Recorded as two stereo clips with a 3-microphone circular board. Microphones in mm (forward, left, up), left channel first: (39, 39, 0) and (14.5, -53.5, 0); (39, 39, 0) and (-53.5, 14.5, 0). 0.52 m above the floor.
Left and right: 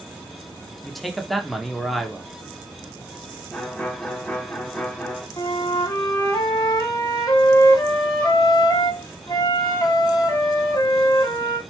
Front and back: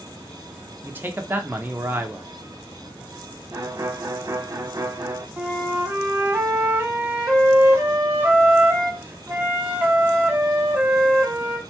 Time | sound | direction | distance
0.8 | a man speaking | 160° left | 0.7 m
3.5 | a violin | 145° left | 0.6 m
5.4 | a flute | 125° left | 0.7 m